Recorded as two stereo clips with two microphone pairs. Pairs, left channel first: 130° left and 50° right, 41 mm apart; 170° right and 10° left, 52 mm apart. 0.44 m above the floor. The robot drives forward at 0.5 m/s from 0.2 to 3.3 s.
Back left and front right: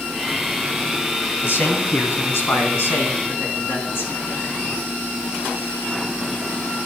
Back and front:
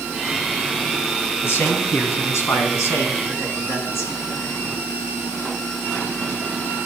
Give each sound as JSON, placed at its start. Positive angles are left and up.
{"t": 1.4, "sound": "a man speaking", "azimuth_deg": 150, "distance_m": 3.0}